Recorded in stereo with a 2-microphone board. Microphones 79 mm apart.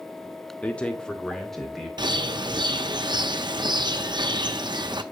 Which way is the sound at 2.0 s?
65° right (ahead or behind).